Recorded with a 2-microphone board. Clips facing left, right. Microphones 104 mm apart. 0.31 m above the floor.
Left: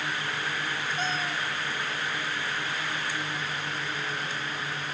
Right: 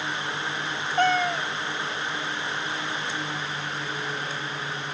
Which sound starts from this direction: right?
A cat meowing, at 1.0 s.